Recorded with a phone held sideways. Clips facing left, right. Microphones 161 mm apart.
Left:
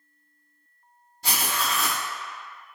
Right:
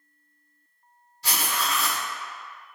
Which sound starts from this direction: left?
Writing, at 1.2 s.